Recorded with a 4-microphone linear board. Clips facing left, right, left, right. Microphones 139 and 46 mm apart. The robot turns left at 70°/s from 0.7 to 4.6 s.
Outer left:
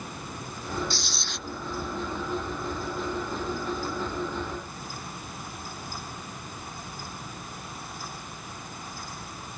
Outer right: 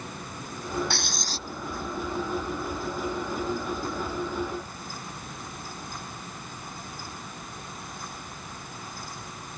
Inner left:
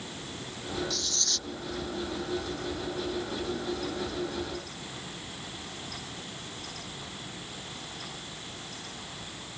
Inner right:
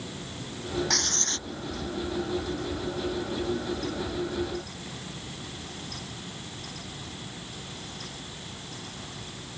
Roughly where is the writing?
Behind right.